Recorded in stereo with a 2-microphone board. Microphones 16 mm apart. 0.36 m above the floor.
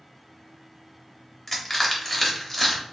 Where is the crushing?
15° left (ahead or behind), 1.0 m.